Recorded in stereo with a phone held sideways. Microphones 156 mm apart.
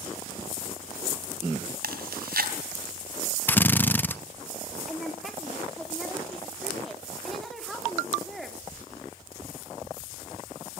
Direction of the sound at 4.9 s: Centre (ahead or behind).